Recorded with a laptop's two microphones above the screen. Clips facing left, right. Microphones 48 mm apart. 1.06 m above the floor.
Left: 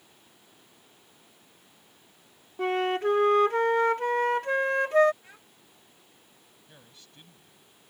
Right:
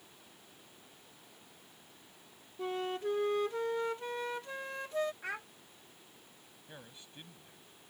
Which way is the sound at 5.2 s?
75° right (ahead or behind).